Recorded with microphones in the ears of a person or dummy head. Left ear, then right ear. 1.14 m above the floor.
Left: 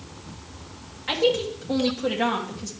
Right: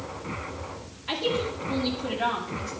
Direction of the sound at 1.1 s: 75° left (ahead or behind).